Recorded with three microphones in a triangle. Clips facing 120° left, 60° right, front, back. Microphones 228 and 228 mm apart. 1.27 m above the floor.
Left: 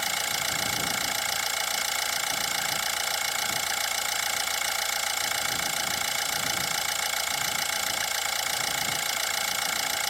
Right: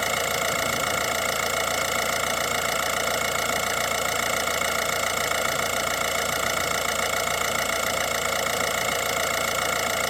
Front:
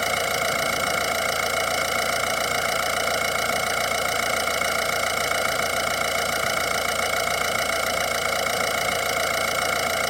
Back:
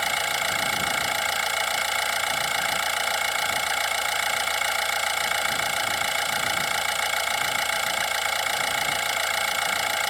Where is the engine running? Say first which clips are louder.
Right 10 dB, front 6 dB; 40° right.